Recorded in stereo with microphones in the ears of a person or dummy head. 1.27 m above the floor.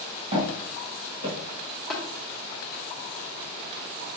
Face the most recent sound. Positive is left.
turn(degrees=5)  # may be behind; listen again after turning